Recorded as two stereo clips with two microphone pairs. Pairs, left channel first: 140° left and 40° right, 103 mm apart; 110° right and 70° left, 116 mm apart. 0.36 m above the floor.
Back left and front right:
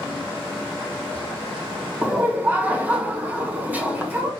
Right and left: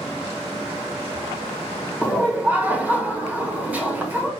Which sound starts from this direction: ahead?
Laughter, at 2.0 s.